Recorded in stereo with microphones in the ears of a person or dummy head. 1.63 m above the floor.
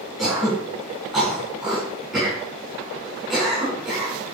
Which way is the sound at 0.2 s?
5° right (ahead or behind).